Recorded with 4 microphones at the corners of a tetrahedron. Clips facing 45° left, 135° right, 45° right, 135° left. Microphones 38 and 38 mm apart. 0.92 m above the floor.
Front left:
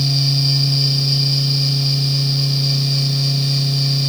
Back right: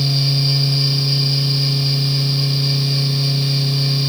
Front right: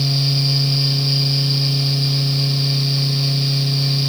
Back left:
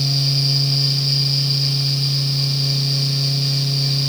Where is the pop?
I don't hear a pop.